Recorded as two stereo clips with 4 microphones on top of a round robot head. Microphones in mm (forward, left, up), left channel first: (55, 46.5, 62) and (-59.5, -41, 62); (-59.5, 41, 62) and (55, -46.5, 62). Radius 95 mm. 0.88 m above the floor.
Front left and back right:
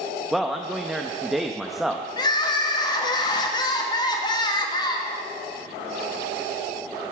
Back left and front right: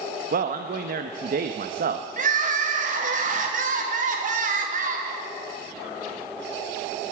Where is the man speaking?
55° right, 0.7 m.